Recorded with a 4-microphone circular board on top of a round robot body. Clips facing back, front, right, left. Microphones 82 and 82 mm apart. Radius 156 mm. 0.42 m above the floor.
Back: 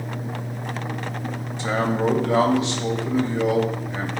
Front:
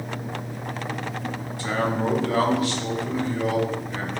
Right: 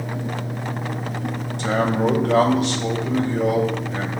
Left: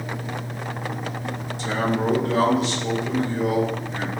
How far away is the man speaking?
About 2.5 m.